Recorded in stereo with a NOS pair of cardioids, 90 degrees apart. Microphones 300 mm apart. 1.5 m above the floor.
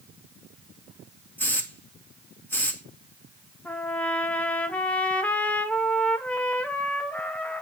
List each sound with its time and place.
1.4 s a hiss: 5° left, 1.7 m
3.6 s a trumpet: 5° left, 1.0 m